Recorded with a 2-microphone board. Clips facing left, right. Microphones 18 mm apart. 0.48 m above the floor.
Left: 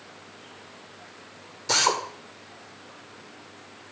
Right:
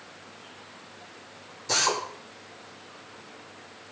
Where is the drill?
30° left (ahead or behind), 1.7 m.